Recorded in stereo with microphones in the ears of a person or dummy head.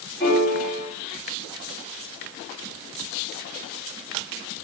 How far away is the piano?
About 4 m.